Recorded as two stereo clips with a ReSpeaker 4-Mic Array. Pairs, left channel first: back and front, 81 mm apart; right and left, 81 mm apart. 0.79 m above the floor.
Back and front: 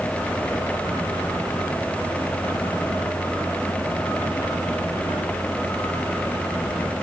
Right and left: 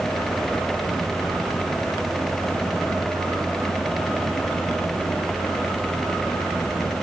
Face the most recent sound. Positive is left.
No sound to turn to.